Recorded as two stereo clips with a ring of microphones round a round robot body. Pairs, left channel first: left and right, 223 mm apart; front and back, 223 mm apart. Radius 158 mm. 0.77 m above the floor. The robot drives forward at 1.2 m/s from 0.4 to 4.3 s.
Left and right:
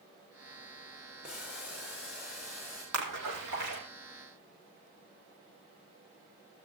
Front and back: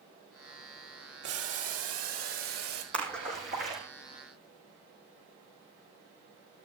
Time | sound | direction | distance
1.2 | boiling | 175° right | 3 m
2.9 | a splash | 105° right | 6 m